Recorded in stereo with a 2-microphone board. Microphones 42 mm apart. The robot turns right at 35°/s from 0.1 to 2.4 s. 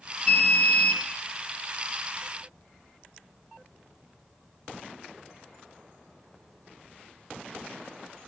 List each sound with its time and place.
0.3 s an alarm: 30° left (ahead or behind), 0.8 m; by 1.0 s 25° left (ahead or behind), 0.8 m